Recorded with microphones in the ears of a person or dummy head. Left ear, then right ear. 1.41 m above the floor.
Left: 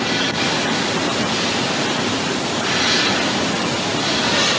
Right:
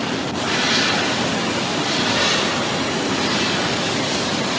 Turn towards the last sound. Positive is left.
No sound to turn to.